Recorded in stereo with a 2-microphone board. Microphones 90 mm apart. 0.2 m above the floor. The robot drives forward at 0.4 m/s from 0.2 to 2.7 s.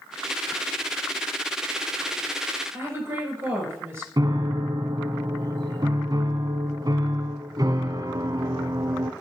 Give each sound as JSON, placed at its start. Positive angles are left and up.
{"t": 2.7, "sound": "a woman speaking", "side_deg": -25, "distance_m": 4.0}
{"t": 4.2, "sound": "a piano", "side_deg": -45, "distance_m": 0.8}